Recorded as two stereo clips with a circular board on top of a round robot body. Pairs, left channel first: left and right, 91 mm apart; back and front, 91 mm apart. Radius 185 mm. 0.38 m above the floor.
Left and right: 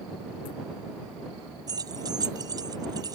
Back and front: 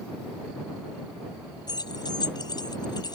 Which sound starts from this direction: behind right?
Keys jangling, at 1.7 s.